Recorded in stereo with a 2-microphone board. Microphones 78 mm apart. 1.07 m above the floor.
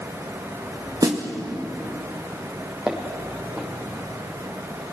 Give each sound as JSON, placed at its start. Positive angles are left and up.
{"t": 1.0, "sound": "a snare drum", "side_deg": -50, "distance_m": 2.0}
{"t": 2.9, "sound": "footsteps", "side_deg": -5, "distance_m": 3.0}